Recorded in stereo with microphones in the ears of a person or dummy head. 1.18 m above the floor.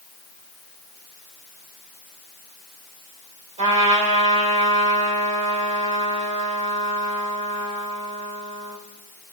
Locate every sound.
3.6 s a trumpet: 30° right (ahead or behind), 3 m